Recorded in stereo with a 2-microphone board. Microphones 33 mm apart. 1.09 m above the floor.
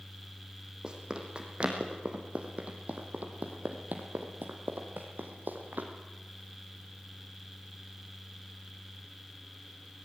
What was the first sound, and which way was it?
Running footsteps, 25° right (ahead or behind).